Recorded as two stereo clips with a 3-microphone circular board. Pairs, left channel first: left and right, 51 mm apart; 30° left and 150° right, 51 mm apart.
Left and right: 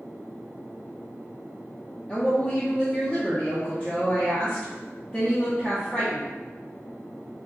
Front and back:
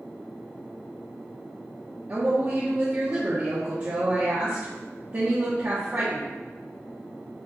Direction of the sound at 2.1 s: 165° left.